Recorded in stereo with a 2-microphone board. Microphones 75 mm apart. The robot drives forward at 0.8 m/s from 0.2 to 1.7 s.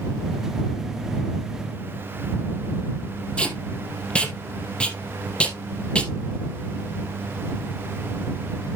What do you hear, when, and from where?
3.4 s tape being pulled: 15° left (ahead or behind), 3.5 m